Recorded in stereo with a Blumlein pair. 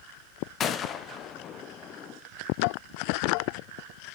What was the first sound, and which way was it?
A gunshot, 25° left.